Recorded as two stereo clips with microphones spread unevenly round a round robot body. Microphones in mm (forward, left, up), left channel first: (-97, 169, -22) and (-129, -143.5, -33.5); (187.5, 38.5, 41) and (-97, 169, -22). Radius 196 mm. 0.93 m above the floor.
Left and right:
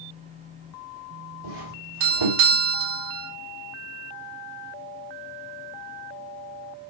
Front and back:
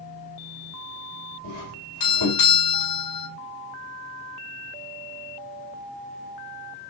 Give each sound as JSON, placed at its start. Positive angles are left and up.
{"t": 1.4, "sound": "a doorbell", "azimuth_deg": -75, "distance_m": 3.5}